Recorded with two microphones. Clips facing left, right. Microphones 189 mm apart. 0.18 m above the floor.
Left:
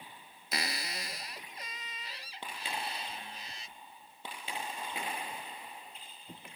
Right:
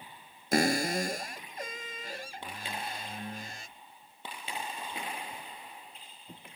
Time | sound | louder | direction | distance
0.5 | a cupboard door | right 14 dB | 50° right (ahead or behind) | ?